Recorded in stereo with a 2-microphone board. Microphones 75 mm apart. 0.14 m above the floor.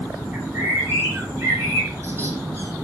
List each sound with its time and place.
0.3 s a bird: 30° right (ahead or behind), 8.5 m